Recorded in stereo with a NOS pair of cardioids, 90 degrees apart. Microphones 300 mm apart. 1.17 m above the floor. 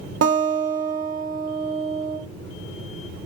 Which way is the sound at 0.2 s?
50° right.